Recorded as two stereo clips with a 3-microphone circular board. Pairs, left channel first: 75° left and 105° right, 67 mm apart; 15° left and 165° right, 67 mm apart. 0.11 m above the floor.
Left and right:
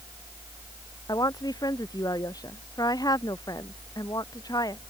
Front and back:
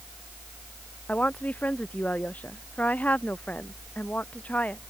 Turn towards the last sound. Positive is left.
turn(degrees=80)